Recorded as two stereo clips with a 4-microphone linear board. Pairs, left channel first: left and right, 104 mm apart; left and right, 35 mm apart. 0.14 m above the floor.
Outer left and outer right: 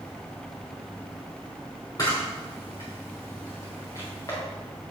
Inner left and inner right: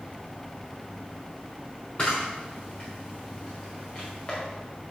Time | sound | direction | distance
2.0 | a camera shutter | 35° left (ahead or behind) | 4.5 m